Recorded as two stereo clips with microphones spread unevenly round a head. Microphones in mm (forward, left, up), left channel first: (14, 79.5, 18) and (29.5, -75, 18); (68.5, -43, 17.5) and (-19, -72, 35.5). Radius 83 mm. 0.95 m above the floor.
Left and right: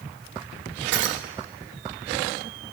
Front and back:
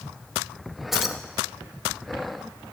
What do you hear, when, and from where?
0.9 s keys jangling: 75° right, 1.1 m